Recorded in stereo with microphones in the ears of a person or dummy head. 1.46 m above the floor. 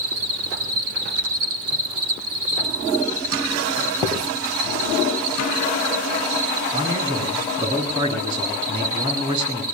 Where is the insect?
50° right (ahead or behind), 1.6 m.